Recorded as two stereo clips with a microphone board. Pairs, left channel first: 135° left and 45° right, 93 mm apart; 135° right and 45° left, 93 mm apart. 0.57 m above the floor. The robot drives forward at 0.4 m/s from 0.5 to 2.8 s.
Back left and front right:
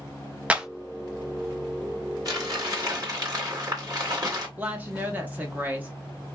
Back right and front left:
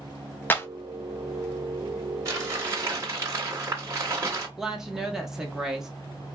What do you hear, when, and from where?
0.5 s a clap: 105° right, 0.5 m; by 0.7 s 115° right, 0.6 m
2.2 s crumpling: 5° right, 2 m
4.6 s a woman speaking: 30° right, 0.9 m